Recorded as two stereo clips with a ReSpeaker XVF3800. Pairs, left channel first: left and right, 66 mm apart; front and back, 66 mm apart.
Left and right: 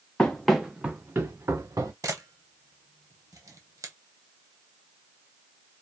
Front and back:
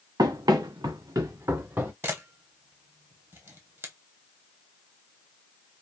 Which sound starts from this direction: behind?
Running footsteps, at 0.2 s.